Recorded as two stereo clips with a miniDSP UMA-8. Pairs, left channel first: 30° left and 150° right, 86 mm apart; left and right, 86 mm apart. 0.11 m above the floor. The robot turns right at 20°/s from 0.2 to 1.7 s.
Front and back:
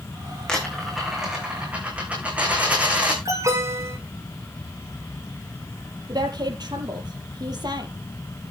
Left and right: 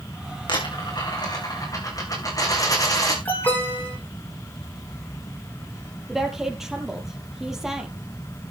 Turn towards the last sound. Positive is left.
turn(degrees=-175)